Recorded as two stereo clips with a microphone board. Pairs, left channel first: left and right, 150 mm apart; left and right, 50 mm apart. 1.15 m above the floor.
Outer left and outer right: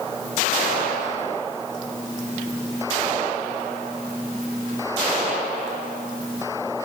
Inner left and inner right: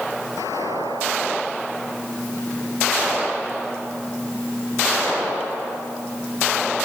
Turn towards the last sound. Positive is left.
No sound to turn to.